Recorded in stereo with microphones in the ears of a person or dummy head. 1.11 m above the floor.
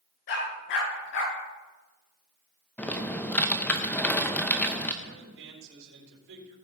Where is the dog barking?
65° left (ahead or behind), 3.5 m.